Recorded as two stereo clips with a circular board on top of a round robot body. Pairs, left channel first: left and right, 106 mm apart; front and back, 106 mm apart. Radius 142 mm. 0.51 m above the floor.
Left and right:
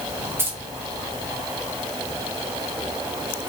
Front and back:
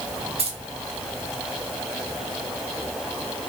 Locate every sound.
0.4 s keys jangling: 160° right, 2.5 m